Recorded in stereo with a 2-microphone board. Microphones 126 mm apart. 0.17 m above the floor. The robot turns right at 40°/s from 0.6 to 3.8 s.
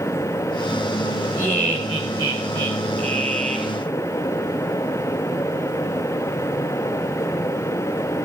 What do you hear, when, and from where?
1.4 s laughter: 165° right, 3 m; by 3.7 s 70° right, 3 m